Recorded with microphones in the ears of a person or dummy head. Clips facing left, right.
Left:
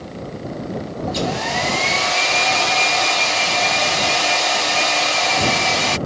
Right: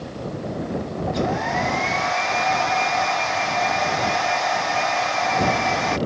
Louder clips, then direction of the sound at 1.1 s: Even; 40° left (ahead or behind).